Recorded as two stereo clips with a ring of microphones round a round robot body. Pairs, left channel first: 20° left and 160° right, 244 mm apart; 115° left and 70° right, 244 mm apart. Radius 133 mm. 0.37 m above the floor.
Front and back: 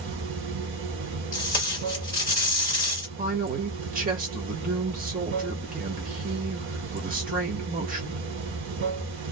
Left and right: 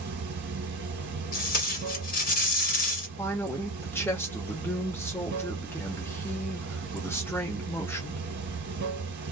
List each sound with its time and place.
0.0 s running water: 115° right, 1.0 m
1.3 s tape being pulled: 85° left, 1.5 m
3.2 s a man speaking: 175° right, 1.1 m